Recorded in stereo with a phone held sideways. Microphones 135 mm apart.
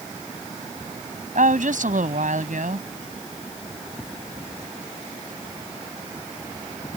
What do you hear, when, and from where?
1.4 s a woman speaking: 75° right (ahead or behind)